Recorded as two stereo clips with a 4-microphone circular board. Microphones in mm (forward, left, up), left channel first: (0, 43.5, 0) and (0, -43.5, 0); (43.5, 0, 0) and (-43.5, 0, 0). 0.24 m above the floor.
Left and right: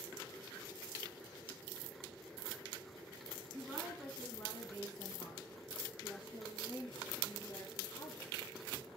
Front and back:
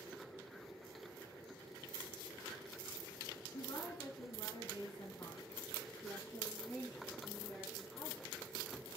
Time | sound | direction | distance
3.5 | a woman speaking | 5° left | 2.5 m